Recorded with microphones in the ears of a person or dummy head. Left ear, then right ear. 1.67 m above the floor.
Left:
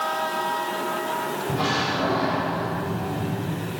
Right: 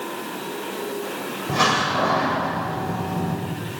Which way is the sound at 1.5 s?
65° right (ahead or behind).